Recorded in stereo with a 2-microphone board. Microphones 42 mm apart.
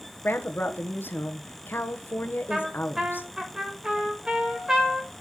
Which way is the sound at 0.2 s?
55° left (ahead or behind).